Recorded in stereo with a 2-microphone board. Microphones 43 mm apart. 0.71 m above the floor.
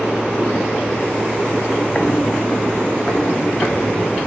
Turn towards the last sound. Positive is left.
turn(degrees=45)  # may be behind; listen again after turning